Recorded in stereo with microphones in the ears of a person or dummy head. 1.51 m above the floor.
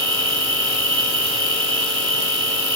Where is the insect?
75° right (ahead or behind), 5 m.